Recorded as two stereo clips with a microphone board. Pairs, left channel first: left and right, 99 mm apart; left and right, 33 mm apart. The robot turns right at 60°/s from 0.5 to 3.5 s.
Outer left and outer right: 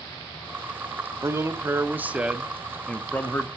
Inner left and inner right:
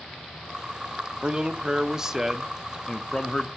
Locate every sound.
1.2 s a man speaking: 85° right, 0.7 m; by 3.5 s 50° left, 0.7 m